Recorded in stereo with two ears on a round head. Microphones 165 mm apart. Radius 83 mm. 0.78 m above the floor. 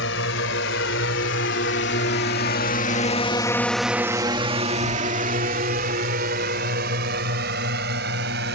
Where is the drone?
75° left (ahead or behind); by 8.6 s 65° right (ahead or behind).